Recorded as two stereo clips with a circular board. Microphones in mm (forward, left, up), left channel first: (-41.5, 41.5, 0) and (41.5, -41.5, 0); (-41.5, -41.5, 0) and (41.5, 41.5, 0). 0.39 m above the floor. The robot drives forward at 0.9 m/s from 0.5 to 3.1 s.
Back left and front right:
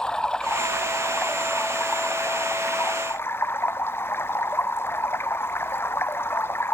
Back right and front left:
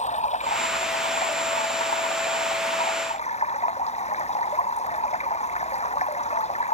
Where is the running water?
140° right; by 6.7 s 155° right.